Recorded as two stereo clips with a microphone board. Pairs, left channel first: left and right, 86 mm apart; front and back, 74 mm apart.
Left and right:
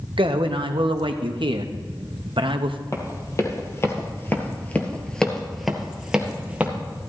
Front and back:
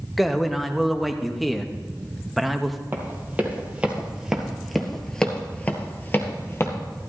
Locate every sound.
0.2 s a man speaking: 90° right, 0.9 m
2.9 s running footsteps: 125° left, 2 m; by 6.7 s 30° right, 1.7 m